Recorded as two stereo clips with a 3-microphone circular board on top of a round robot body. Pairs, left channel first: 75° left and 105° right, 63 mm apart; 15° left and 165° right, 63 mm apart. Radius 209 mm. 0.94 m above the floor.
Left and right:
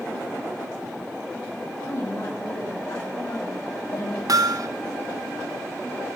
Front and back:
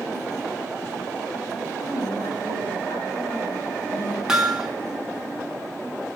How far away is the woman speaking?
About 8 m.